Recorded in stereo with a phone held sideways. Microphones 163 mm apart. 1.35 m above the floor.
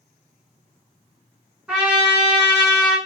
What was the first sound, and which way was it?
A trumpet, 5° right (ahead or behind).